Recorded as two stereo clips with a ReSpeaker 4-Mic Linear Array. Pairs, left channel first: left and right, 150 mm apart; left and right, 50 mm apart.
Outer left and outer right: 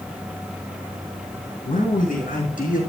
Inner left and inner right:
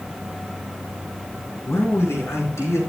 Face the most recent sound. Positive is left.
turn(degrees=60)  # may be behind; listen again after turning